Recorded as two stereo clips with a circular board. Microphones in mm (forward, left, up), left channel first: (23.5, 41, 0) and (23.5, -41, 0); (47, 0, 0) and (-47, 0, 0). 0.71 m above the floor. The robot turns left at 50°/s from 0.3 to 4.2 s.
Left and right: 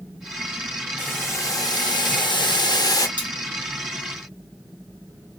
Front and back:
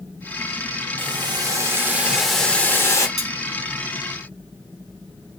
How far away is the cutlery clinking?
About 1.1 m.